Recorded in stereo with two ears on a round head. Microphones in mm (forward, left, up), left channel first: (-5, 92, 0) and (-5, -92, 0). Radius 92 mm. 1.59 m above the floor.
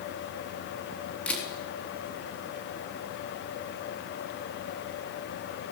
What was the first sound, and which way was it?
A camera shutter, 5° left (ahead or behind).